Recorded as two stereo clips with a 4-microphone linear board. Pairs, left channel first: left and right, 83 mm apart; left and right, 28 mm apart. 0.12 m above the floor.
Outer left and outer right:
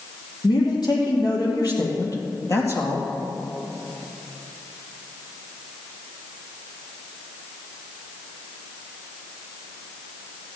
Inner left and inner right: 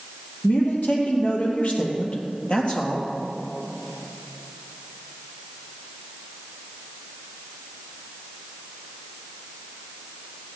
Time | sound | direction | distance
0.4 | a man speaking | 60° left (ahead or behind) | 3.5 m